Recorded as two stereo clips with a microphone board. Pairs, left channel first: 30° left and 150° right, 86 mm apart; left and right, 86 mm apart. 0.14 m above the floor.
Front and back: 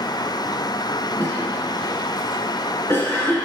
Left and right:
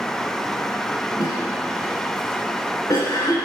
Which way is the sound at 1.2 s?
80° left.